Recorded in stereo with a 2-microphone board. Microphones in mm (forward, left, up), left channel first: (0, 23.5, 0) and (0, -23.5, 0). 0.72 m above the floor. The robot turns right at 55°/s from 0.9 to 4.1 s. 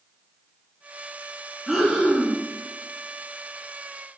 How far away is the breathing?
About 1.2 m.